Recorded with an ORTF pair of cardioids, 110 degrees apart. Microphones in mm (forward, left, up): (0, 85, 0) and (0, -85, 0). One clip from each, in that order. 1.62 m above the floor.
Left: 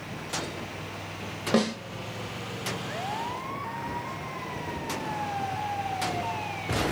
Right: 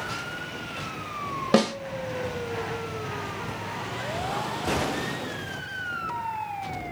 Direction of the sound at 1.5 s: 25° right.